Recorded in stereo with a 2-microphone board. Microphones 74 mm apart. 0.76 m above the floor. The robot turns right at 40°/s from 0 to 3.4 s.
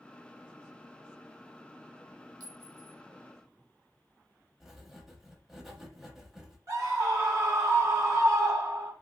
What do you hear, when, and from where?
2.4 s a clink: 55° right (ahead or behind), 0.9 m; by 3.0 s 65° right (ahead or behind), 0.9 m
4.6 s writing: 5° right (ahead or behind), 0.6 m
6.7 s a scream: 40° right (ahead or behind), 1.6 m